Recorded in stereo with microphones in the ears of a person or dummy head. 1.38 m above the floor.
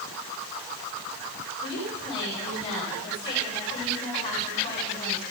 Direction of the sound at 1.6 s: 30° left (ahead or behind).